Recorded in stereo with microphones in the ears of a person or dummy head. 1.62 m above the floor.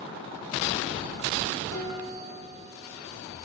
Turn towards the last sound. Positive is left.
turn(degrees=80)